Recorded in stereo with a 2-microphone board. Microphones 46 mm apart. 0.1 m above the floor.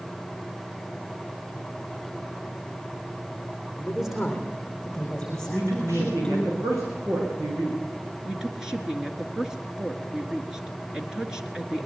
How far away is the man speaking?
About 5.5 m.